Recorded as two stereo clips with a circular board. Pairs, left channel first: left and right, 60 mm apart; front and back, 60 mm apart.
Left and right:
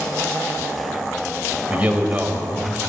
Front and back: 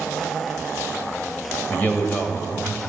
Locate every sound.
1.7 s a man speaking: 35° right, 1.4 m